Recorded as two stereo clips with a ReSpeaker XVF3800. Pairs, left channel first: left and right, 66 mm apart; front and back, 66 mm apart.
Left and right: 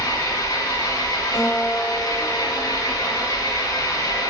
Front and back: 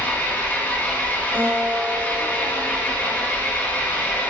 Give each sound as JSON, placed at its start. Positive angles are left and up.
{"t": 0.0, "sound": "an engine running", "azimuth_deg": 65, "distance_m": 3.5}
{"t": 1.3, "sound": "a guitar", "azimuth_deg": 125, "distance_m": 2.5}